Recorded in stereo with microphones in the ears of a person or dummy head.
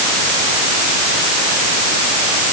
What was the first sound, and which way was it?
Only background noise.